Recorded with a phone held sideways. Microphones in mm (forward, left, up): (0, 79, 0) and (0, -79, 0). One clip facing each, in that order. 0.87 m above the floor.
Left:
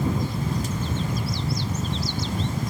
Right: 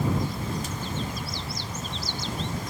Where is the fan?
55° left (ahead or behind).